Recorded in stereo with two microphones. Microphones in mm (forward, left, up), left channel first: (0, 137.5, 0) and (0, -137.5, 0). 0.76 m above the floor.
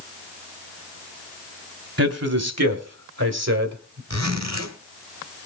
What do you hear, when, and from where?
2.0 s a man speaking: 65° right (ahead or behind), 1.8 m; by 4.0 s 75° right (ahead or behind), 2.5 m
4.1 s a zipper: 80° right, 2 m